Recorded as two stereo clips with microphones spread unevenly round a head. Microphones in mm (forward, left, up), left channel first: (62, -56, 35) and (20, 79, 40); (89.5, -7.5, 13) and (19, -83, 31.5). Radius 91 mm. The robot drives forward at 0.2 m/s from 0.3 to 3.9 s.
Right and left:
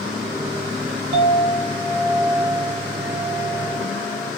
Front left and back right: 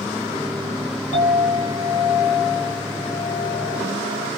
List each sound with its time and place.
1.1 s a clink: 100° left, 2 m; by 4.3 s 115° left, 2 m